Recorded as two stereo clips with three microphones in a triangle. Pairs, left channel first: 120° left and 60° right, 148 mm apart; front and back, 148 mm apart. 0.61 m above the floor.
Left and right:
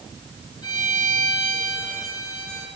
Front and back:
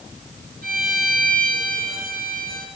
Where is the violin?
175° right, 4 m.